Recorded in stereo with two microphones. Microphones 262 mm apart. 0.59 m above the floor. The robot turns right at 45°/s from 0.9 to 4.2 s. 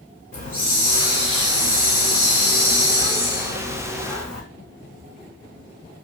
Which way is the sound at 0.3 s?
30° left.